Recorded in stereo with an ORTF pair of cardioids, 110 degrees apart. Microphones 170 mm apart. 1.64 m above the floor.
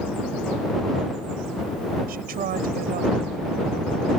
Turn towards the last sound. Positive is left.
turn(degrees=-60)